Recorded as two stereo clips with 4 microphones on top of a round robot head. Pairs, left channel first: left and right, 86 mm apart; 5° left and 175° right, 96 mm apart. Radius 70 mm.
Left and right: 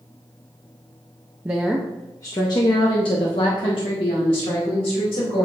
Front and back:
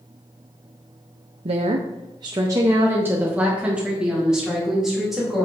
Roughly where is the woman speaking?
Behind.